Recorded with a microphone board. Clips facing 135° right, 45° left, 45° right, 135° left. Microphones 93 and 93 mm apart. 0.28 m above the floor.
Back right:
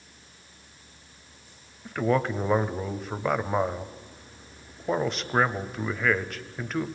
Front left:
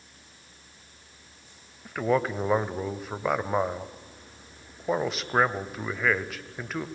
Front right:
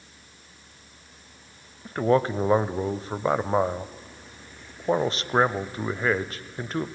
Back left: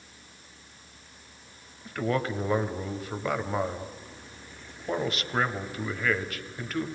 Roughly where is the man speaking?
Ahead right.